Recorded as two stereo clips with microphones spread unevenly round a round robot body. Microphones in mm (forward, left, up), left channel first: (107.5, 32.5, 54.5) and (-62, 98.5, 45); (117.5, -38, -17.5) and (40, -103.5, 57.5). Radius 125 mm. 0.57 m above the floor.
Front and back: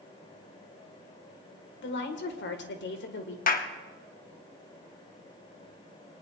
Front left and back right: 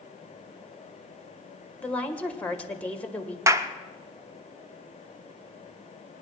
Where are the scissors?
I don't hear scissors.